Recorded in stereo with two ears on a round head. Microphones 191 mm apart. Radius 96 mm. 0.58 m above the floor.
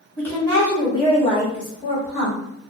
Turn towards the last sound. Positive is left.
turn(degrees=35)  # may be behind; listen again after turning